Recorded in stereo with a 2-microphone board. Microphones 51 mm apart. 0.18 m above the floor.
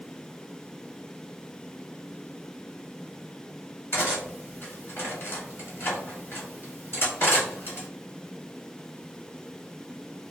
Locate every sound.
3.9 s cutlery clinking: 45° left (ahead or behind), 1.2 m